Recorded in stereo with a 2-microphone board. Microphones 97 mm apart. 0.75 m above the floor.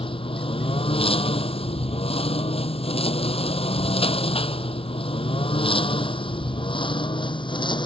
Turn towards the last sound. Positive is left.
turn(degrees=55)  # may be behind; listen again after turning